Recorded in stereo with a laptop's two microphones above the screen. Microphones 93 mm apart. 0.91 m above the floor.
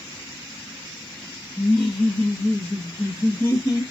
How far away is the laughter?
About 1.7 m.